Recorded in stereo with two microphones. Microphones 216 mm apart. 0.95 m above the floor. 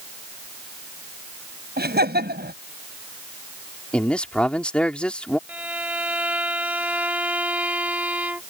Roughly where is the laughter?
Right.